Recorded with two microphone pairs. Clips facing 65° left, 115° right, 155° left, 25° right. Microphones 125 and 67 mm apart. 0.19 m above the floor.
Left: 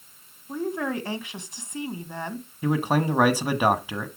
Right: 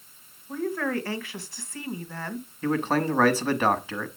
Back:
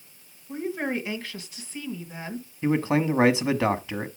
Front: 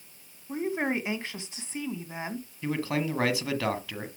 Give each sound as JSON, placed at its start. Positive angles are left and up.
{"t": 0.5, "sound": "a woman speaking", "azimuth_deg": 15, "distance_m": 1.7}
{"t": 2.6, "sound": "a man speaking", "azimuth_deg": 125, "distance_m": 1.2}